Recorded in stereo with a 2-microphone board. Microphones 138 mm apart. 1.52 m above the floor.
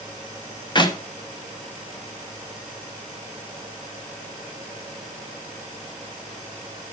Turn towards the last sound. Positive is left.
turn(degrees=35)  # may be behind; listen again after turning